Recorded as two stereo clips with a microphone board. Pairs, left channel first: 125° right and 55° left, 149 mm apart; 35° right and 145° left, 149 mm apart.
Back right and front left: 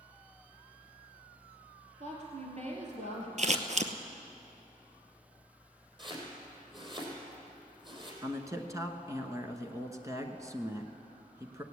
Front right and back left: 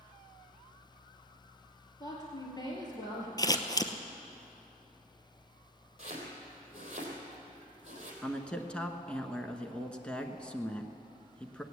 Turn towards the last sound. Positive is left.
turn(degrees=40)